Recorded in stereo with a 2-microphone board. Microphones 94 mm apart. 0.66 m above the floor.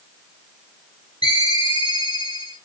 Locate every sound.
1.2 s a ringtone: 60° left (ahead or behind), 1.8 m